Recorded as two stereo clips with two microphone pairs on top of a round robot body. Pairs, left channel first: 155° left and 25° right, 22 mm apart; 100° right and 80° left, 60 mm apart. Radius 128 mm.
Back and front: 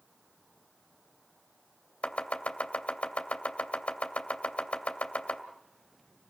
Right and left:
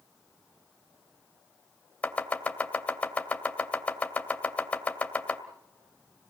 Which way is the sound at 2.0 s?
165° right.